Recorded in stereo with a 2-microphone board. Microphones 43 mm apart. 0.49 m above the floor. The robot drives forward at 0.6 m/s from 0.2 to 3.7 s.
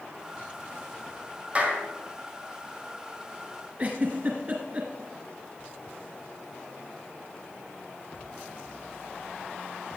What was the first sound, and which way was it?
A clap, 30° right (ahead or behind).